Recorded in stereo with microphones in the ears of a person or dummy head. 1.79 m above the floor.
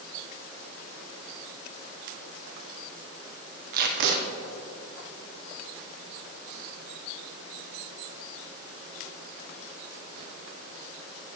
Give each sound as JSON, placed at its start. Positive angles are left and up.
{"t": 3.7, "sound": "tape being pulled", "side_deg": -60, "distance_m": 0.9}